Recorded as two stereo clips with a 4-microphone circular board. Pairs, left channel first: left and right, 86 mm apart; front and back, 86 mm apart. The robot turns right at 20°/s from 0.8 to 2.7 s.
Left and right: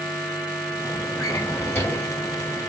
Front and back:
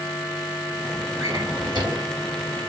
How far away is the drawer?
About 1.1 m.